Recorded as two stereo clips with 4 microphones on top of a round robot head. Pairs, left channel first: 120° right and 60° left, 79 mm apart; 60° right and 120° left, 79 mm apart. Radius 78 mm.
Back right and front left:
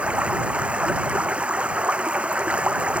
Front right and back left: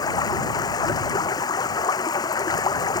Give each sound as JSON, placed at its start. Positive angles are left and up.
{"t": 0.0, "sound": "running water", "azimuth_deg": -20}